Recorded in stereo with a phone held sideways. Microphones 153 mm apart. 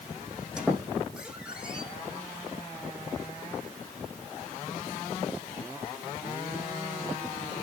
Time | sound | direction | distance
0.6 | a squeak | 5° right (ahead or behind) | 4.5 m